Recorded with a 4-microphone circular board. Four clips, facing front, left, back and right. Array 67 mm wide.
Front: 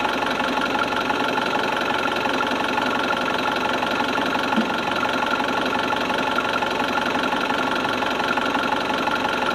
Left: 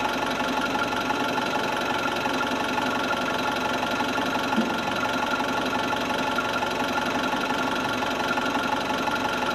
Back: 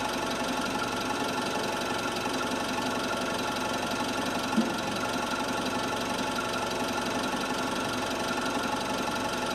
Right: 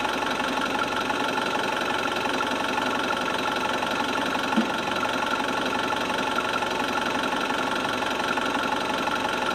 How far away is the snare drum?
About 1.8 m.